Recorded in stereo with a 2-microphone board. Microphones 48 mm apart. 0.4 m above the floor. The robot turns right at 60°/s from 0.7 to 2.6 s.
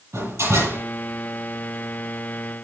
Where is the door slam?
80° right, 9 m; by 0.8 s 85° right, 9 m.